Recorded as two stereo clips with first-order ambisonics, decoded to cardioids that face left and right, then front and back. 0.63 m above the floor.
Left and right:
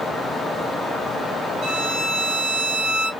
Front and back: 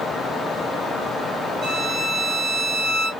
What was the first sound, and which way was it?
A violin, 130° right.